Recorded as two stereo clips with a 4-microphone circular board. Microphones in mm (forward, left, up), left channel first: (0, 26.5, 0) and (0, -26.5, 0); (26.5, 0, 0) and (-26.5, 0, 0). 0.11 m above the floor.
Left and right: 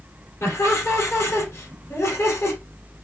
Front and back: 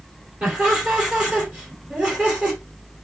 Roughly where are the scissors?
No scissors in this recording.